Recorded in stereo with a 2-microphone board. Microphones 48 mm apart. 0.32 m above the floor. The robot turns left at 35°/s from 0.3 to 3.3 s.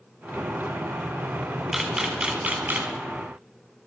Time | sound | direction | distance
1.7 | a camera shutter | 5° right | 1.7 m